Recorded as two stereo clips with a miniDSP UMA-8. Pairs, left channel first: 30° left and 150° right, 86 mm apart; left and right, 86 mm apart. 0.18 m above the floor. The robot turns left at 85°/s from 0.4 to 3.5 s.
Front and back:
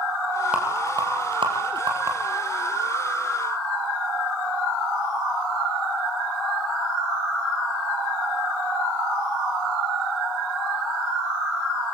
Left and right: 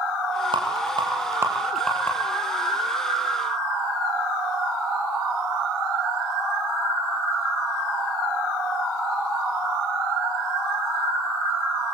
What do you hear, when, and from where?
0.5 s a rattle: 75° right, 5 m; by 2.1 s 145° left, 5 m